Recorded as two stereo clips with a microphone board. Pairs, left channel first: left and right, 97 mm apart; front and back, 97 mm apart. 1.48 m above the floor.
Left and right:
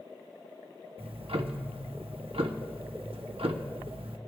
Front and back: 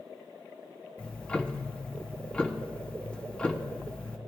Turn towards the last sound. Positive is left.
turn(degrees=-80)